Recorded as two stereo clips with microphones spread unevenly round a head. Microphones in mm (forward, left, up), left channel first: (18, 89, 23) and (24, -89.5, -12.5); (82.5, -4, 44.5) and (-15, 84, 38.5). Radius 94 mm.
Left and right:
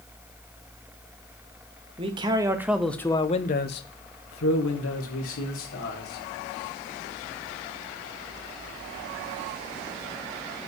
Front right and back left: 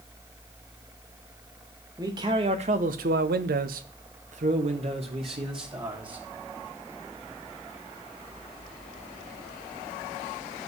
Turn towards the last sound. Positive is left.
turn(degrees=80)